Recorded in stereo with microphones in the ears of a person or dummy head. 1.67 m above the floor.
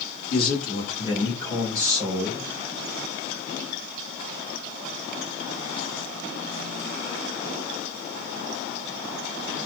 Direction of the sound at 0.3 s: 50° left (ahead or behind).